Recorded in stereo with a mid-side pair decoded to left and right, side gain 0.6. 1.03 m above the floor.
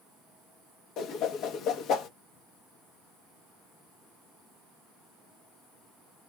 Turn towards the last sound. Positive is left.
turn(degrees=60)